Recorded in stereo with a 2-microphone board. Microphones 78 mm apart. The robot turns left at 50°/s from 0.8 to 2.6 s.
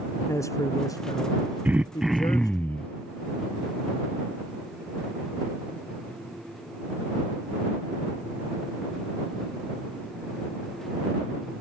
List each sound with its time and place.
0.3 s a man speaking: 140° left; by 2.6 s 50° left
1.6 s throat clearing: 155° right; by 2.9 s 160° left